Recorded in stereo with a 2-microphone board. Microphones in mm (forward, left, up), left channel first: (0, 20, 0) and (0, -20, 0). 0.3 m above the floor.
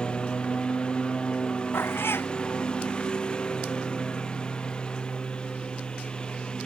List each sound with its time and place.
0.0 s a lawn mower: 25° left (ahead or behind); by 6.7 s 20° left (ahead or behind)
1.7 s a cat meowing: 75° left (ahead or behind)